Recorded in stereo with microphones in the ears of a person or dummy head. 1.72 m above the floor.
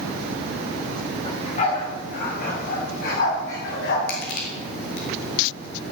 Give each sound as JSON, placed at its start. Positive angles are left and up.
{"t": 1.2, "sound": "a dog barking", "side_deg": 35, "distance_m": 3.5}
{"t": 4.1, "sound": "crushing", "side_deg": 50, "distance_m": 2.5}